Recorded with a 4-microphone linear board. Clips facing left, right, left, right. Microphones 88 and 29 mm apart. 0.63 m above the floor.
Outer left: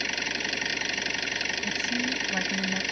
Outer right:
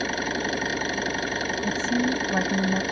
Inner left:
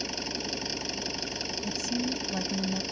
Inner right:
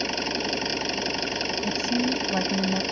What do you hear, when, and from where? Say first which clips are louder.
0.0 s an engine running: outer right 6 dB, inner right 7 dB; 35° right (ahead or behind)
1.6 s a woman speaking: outer right 8 dB, inner right 6 dB; 30° right (ahead or behind)